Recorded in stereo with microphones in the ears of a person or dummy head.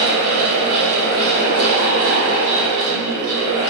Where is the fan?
60° right (ahead or behind), 0.9 m.